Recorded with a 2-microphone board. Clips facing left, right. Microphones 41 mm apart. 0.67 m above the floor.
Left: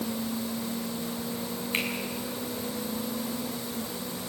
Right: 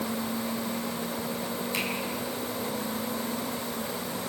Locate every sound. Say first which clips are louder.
1.7 s a finger snap: left 3 dB; 35° left (ahead or behind), 6 m